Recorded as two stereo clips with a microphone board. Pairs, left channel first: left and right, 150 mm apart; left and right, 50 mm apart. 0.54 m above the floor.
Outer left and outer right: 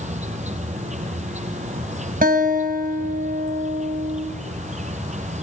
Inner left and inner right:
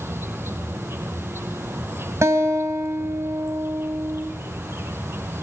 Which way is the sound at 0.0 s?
50° right (ahead or behind).